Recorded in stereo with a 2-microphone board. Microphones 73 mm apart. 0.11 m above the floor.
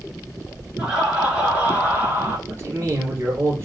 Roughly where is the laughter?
Centre.